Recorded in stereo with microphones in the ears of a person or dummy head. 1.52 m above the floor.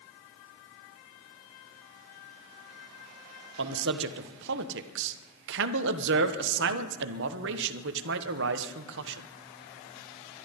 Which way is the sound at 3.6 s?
65° right (ahead or behind).